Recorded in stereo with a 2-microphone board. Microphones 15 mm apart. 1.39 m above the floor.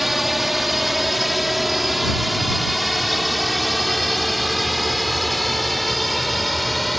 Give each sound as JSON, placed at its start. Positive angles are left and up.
{"t": 0.0, "sound": "a drone", "side_deg": -10}